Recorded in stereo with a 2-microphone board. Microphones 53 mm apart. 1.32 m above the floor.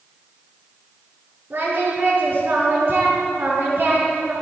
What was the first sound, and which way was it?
Singing, 50° right (ahead or behind).